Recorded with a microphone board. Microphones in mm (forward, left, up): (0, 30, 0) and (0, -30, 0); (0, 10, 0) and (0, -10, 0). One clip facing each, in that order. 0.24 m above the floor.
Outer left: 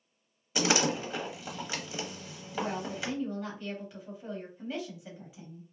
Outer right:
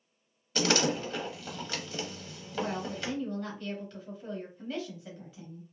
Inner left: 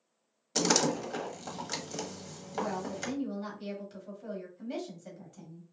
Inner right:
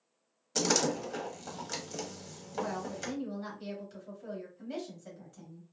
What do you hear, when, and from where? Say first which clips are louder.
0.6 s a door slam: even, inner left 2 dB; 15° left (ahead or behind), 0.6 m
2.5 s a woman speaking: even, inner left 1 dB; 10° left (ahead or behind), 1.1 m